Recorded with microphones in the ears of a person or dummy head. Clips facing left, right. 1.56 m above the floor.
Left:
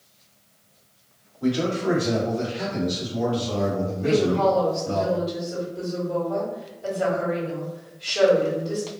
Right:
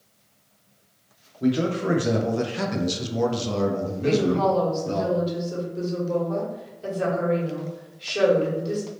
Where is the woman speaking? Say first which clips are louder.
Left 1 dB; 40° right (ahead or behind), 1.5 m.